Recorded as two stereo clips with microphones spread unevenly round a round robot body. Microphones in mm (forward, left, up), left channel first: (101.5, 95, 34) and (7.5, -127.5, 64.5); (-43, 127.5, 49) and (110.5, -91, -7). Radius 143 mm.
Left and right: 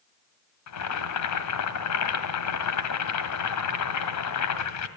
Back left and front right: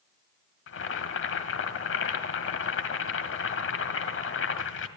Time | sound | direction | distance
0.7 | boiling | 80° left | 2.0 m